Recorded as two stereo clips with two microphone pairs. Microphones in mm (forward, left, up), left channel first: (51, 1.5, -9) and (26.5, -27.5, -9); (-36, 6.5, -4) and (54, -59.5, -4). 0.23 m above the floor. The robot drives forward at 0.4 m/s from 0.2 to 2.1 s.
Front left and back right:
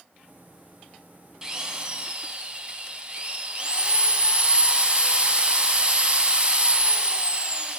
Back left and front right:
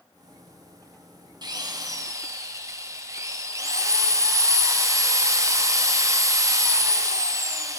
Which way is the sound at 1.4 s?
65° right.